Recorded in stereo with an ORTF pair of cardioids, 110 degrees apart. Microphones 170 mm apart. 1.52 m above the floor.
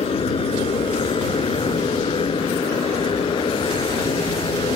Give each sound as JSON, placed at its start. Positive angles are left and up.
{"t": 0.0, "sound": "a motorcycle", "azimuth_deg": 35}